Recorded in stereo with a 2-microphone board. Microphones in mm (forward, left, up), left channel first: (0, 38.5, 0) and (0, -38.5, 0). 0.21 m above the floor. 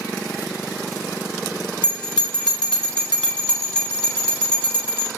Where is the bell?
10° left (ahead or behind), 1.0 m.